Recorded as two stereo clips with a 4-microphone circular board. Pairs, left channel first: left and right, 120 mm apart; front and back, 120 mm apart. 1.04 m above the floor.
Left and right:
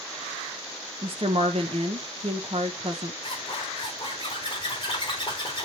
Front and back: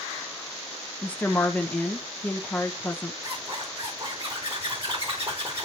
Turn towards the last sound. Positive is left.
turn(degrees=140)